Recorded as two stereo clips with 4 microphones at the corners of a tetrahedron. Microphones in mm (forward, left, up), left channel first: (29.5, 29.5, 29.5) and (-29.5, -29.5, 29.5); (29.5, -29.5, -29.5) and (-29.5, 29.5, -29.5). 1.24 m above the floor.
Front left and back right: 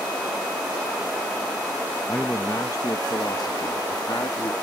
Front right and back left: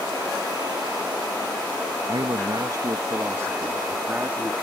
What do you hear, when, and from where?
2.1 s a man speaking: 110° left; by 4.5 s 65° left